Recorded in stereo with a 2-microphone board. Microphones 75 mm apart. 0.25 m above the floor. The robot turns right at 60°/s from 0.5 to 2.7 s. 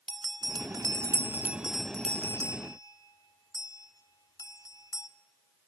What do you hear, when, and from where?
0.1 s a bell: 65° right (ahead or behind), 0.6 m; by 5.1 s 50° left (ahead or behind), 0.6 m